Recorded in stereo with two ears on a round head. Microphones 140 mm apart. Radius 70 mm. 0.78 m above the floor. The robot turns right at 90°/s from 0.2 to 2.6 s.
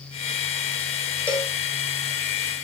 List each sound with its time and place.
1.3 s a cowbell: 10° left (ahead or behind), 1.1 m; by 1.5 s 10° right (ahead or behind), 1.1 m